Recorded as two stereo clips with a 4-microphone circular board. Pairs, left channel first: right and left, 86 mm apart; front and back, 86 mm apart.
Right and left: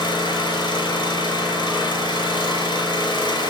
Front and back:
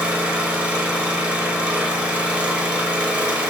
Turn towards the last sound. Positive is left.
turn(degrees=-105)